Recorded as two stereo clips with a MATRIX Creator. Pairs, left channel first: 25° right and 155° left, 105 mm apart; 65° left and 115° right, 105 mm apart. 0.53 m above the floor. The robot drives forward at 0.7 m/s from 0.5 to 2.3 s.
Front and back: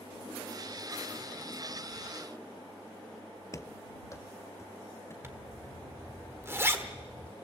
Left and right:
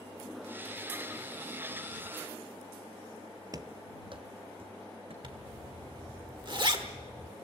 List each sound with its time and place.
3.5 s running footsteps: 75° right, 0.7 m; by 5.1 s 85° right, 2.5 m
5.2 s a zipper: 140° right, 1.3 m